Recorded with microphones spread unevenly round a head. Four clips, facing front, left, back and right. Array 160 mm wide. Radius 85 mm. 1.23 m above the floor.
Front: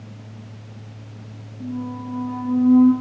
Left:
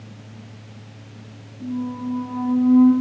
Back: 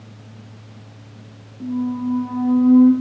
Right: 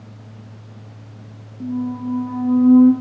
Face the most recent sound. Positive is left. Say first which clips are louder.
# right 3 dB, back 6 dB
turn(degrees=-120)